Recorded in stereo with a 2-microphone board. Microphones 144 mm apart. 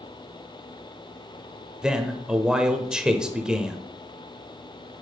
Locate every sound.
1.8 s a man speaking: 5° right (ahead or behind), 0.8 m